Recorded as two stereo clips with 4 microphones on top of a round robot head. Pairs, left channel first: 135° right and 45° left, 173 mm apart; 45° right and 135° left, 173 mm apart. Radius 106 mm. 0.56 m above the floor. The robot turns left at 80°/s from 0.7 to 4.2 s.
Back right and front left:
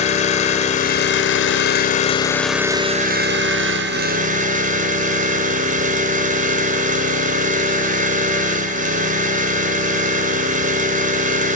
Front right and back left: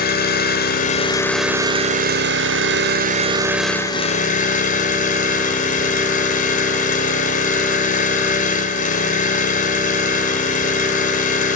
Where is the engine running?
80° right, 1.5 m; by 11.6 s straight ahead, 1.5 m.